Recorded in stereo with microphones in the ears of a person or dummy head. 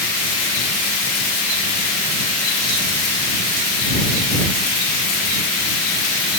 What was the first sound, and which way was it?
Only background noise.